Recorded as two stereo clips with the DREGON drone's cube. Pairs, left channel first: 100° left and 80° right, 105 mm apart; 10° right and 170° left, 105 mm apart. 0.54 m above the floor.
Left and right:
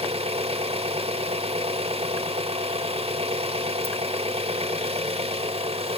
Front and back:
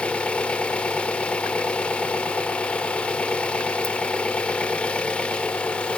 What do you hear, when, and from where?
0.0 s an engine running: 90° right, 0.7 m